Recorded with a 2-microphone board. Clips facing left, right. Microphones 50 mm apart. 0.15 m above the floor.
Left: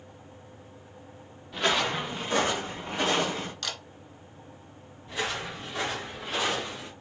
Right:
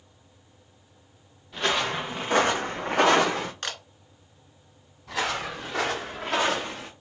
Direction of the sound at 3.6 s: 40° right (ahead or behind).